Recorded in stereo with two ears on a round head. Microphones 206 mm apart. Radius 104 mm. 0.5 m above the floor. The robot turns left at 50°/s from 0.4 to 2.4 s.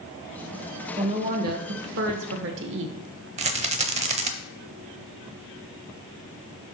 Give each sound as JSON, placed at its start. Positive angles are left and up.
{"t": 1.0, "sound": "a woman speaking", "azimuth_deg": -25, "distance_m": 1.2}
{"t": 3.4, "sound": "a rattle", "side_deg": -30, "distance_m": 0.8}